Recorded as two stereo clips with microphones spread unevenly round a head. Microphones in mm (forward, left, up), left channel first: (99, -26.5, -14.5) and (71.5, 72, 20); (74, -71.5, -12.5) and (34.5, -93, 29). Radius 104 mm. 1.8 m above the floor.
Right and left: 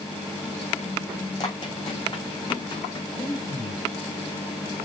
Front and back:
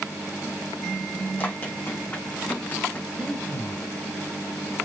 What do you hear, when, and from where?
1.4 s running footsteps: 25° right, 6.5 m; by 3.0 s 30° right, 7 m
3.1 s breathing: 20° right, 6 m